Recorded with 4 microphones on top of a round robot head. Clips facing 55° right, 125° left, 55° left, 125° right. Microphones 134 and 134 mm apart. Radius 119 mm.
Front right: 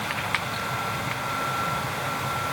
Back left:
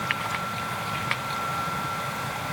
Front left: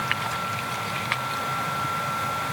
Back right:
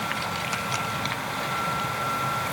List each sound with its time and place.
Only background noise.